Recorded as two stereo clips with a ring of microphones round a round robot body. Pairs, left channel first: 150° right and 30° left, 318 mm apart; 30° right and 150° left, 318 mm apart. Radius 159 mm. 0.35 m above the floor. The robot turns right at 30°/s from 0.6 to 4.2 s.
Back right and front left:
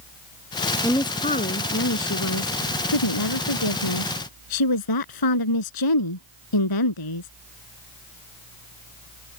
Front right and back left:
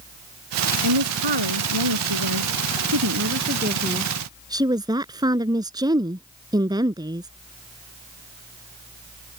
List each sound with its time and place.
0.8 s a woman speaking: 125° left; by 7.3 s 130° right